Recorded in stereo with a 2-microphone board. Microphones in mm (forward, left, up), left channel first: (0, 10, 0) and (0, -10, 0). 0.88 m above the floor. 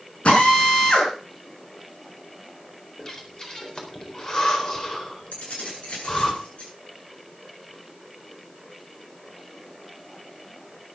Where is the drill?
65° left (ahead or behind), 5.5 m.